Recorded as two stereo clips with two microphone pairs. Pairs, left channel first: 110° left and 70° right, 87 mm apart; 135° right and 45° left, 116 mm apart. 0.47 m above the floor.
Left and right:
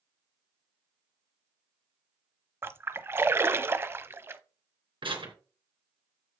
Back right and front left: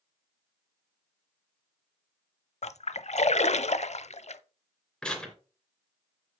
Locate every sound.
2.6 s a splash: 130° right, 0.5 m
5.0 s tearing paper: 50° right, 3 m